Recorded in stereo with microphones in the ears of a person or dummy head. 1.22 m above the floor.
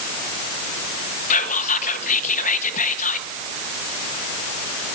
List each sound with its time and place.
1.3 s whispering: 50° left (ahead or behind), 0.9 m